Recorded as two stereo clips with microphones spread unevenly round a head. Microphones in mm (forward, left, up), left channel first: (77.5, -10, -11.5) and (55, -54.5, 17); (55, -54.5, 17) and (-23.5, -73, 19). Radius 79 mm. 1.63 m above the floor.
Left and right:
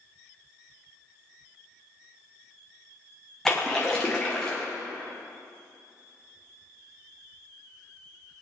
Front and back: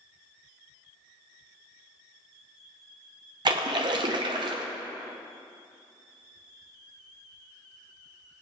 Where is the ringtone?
No ringtone in this recording.